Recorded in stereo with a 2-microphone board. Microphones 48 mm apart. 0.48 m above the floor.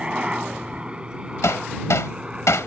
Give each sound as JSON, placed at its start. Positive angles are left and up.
{"t": 0.0, "sound": "a helicopter", "side_deg": -20}
{"t": 1.4, "sound": "hammering", "side_deg": 85}